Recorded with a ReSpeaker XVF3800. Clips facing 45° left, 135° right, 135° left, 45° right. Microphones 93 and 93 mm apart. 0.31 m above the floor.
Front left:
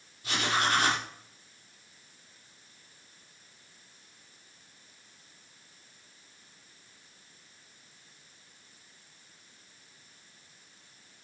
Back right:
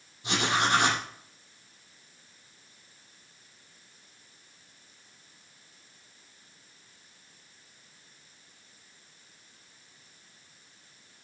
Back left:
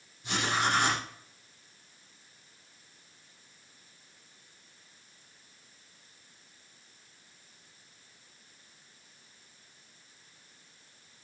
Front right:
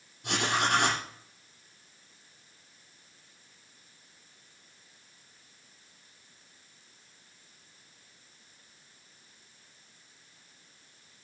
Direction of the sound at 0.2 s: 70° right.